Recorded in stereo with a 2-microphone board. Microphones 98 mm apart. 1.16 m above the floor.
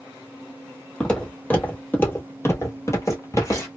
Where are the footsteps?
10° left (ahead or behind), 1.5 m; by 3.7 s 30° left (ahead or behind), 1.4 m.